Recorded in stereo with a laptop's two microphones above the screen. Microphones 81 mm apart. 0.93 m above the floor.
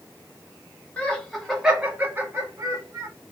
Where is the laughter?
15° left (ahead or behind), 0.9 m; by 3.1 s 50° right (ahead or behind), 1.2 m.